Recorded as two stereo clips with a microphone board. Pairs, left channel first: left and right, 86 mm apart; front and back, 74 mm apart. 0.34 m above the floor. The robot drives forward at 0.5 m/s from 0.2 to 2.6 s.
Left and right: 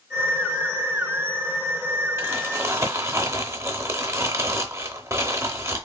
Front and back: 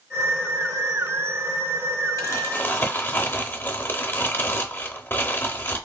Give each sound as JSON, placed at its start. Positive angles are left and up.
{"t": 2.2, "sound": "crumpling", "azimuth_deg": -35, "distance_m": 0.7}